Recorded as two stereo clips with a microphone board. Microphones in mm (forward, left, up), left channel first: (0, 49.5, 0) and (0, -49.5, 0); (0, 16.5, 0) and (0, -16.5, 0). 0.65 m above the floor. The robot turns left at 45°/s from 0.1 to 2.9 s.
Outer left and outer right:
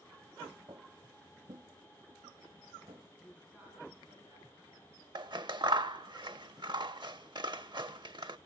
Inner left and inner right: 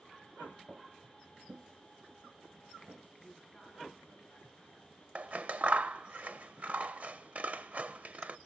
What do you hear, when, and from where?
0.7 s footsteps: 35° right (ahead or behind), 1.2 m; by 3.0 s 70° right (ahead or behind), 2.5 m
3.2 s a woman speaking: 20° right (ahead or behind), 5.5 m
5.2 s scissors: 50° right (ahead or behind), 0.6 m